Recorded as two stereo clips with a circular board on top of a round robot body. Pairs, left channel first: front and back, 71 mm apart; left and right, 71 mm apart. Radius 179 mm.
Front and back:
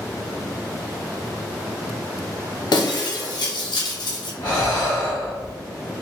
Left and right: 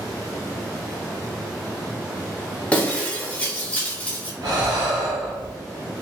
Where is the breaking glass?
15° left, 1.1 m.